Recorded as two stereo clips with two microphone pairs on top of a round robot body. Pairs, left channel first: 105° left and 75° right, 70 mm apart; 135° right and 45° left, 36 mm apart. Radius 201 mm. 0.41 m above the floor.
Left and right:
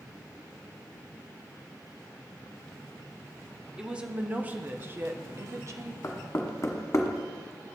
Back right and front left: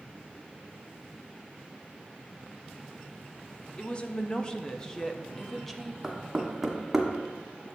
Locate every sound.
3.8 s a woman speaking: 155° right, 1.3 m; by 5.9 s 60° right, 1.3 m
6.0 s knocking: 130° left, 1.6 m